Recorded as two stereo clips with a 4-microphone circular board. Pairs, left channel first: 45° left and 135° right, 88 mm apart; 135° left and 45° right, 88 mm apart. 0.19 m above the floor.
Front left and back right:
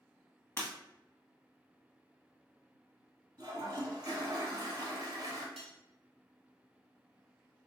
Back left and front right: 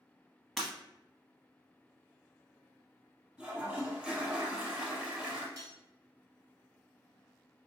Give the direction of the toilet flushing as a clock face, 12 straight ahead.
4 o'clock.